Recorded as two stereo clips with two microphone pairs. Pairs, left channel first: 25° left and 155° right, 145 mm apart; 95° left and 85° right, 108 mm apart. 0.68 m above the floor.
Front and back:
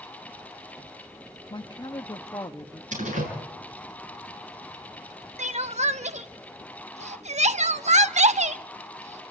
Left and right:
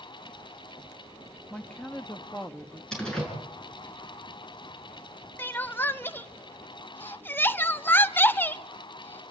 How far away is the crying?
About 0.7 m.